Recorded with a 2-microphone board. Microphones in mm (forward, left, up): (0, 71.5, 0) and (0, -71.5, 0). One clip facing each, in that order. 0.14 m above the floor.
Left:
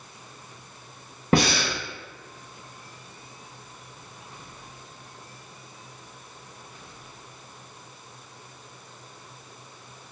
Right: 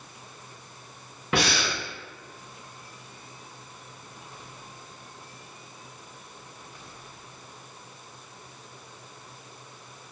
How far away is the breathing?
About 0.6 m.